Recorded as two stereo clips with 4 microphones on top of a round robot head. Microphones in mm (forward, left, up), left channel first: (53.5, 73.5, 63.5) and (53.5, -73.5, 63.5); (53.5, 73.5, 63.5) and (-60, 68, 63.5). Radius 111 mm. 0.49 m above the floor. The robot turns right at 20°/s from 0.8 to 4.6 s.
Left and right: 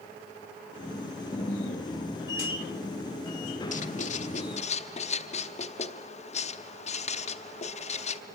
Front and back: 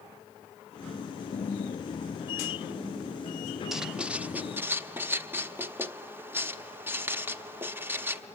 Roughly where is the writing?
Left.